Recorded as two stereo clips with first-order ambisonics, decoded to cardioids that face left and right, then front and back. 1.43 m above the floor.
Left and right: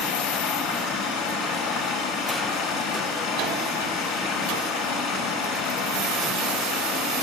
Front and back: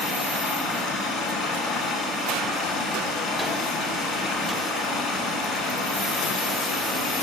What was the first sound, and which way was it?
Running water, 95° left.